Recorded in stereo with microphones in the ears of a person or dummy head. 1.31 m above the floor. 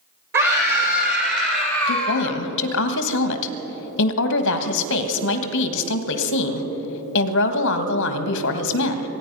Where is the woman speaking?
65° left (ahead or behind), 1.3 m.